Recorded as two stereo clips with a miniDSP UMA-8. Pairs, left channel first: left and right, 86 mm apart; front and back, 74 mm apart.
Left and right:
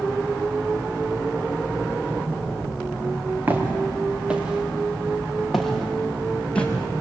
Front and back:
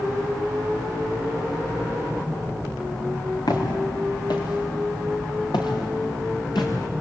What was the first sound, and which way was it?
Footsteps, 25° right.